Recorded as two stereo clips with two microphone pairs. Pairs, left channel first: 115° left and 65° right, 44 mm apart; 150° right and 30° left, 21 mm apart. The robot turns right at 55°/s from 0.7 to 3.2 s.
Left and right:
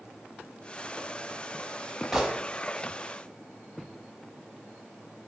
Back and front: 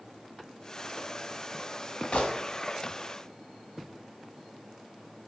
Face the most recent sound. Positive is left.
turn(degrees=-95)